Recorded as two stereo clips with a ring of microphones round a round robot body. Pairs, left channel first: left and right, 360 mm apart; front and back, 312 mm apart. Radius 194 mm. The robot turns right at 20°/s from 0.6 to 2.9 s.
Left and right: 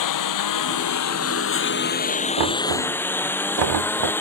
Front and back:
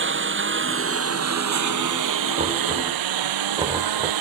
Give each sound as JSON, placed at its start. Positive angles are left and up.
{"t": 0.0, "sound": "a lawn mower", "azimuth_deg": 130}
{"t": 2.4, "sound": "knocking", "azimuth_deg": -115}